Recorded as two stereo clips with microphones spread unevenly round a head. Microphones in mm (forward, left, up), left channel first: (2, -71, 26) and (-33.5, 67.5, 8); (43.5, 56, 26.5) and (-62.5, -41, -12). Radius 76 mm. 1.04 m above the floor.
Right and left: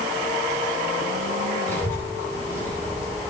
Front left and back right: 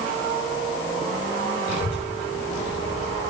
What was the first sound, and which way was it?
A child speaking, straight ahead.